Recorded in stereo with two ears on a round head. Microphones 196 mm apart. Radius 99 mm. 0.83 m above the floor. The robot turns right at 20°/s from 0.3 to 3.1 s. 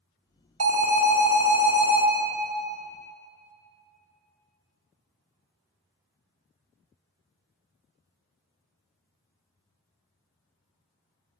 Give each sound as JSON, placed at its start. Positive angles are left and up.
{"t": 0.6, "sound": "an alarm", "side_deg": -70, "distance_m": 1.3}